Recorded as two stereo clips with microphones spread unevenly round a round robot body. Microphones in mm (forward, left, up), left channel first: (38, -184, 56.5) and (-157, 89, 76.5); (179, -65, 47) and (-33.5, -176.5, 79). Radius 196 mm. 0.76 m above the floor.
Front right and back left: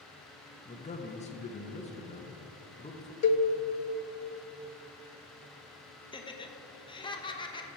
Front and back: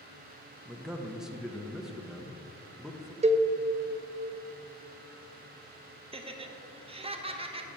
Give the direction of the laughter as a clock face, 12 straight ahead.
3 o'clock.